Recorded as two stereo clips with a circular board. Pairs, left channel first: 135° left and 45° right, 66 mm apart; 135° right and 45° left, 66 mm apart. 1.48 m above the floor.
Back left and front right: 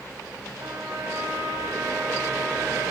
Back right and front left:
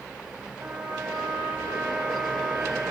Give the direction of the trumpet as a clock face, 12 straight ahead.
12 o'clock.